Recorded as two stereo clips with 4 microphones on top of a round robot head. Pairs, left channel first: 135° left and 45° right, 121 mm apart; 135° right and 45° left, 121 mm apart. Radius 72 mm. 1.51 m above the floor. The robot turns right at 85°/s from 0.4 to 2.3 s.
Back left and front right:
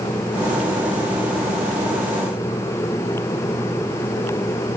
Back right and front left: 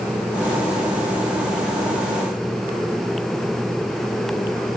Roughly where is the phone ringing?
No phone ringing in this recording.